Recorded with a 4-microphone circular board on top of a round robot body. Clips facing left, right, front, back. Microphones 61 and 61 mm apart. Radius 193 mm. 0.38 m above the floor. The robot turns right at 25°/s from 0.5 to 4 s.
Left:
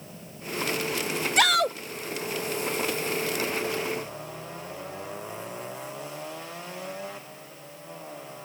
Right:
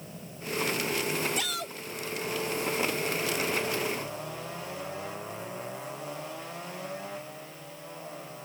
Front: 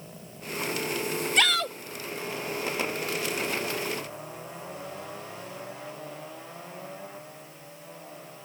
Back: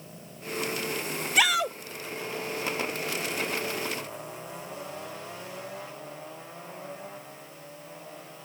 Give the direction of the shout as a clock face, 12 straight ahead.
9 o'clock.